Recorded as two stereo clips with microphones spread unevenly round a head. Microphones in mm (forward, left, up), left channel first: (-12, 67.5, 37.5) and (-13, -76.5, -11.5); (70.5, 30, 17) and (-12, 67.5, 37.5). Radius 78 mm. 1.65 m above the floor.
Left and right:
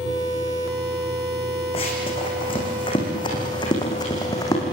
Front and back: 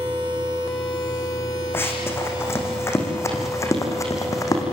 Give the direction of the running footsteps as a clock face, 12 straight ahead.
11 o'clock.